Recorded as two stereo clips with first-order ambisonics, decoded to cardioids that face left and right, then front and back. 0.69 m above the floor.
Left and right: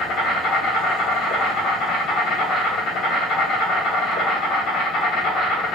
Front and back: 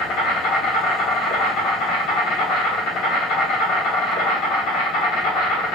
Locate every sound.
0.0 s an insect: 40° left, 0.8 m